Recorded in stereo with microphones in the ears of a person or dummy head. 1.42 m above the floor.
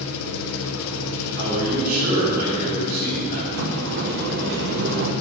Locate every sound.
0.0 s an engine running: 80° left, 1.0 m
1.4 s a man speaking: 50° right (ahead or behind), 4 m
3.5 s a sliding door: 55° right (ahead or behind), 1.0 m